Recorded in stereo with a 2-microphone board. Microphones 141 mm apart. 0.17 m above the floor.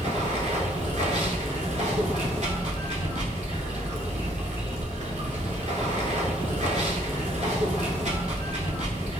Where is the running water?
60° right (ahead or behind), 0.7 m.